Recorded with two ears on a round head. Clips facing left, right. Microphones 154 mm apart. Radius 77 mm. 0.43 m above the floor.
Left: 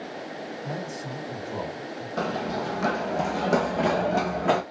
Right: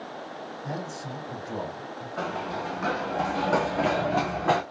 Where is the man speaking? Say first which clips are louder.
Right 1 dB; 20° left (ahead or behind), 3.5 m.